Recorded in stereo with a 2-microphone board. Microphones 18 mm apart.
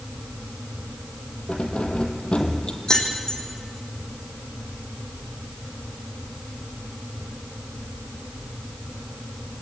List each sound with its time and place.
1.5 s keys jangling: 65° left (ahead or behind), 2 m
2.9 s keys jangling: 35° left (ahead or behind), 3.5 m